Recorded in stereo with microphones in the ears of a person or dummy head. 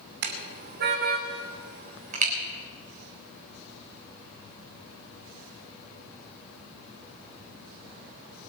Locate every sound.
0.2 s a car horn: 60° right (ahead or behind), 2.5 m; by 2.3 s 50° right (ahead or behind), 3.5 m